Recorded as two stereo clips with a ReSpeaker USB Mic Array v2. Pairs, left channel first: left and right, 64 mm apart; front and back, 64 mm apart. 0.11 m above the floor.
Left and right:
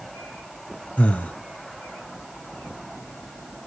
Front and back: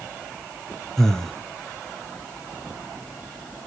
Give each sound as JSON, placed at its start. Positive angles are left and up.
{"t": 1.0, "sound": "breathing", "azimuth_deg": 65, "distance_m": 0.8}